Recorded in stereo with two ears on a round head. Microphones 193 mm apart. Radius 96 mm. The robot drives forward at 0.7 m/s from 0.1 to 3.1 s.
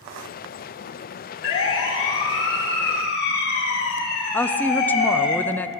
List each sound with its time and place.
1.4 s a siren: 65° left (ahead or behind), 4.5 m; by 5.3 s 50° left (ahead or behind), 7.5 m
4.3 s a woman speaking: 10° left (ahead or behind), 0.9 m